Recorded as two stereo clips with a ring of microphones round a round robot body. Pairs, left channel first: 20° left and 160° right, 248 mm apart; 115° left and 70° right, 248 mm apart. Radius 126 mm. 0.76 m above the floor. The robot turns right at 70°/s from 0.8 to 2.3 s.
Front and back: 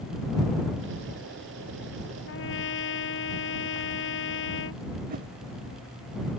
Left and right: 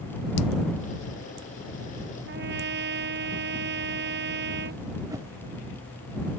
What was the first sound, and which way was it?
A trumpet, 25° right.